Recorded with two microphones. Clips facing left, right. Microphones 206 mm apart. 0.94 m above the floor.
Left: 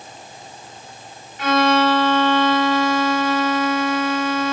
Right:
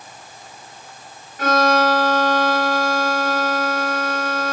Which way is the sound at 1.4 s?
50° right (ahead or behind).